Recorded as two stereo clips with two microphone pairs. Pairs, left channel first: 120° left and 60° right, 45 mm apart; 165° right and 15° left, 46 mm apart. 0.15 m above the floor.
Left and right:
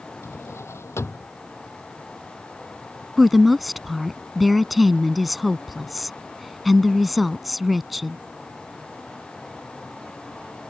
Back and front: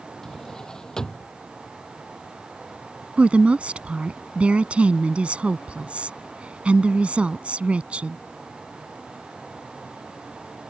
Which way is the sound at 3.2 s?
25° left.